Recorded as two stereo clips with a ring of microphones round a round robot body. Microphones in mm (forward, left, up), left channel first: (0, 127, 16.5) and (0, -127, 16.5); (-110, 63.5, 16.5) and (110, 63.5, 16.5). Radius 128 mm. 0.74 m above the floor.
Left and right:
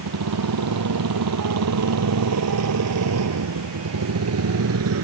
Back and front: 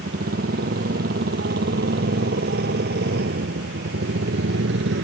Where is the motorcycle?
60° right; by 5.0 s 50° right.